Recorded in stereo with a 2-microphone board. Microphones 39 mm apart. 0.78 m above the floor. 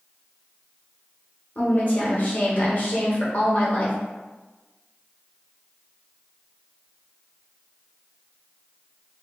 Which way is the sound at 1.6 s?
40° left (ahead or behind).